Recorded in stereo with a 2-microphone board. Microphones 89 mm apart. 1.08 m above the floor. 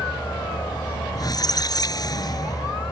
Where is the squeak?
45° left (ahead or behind).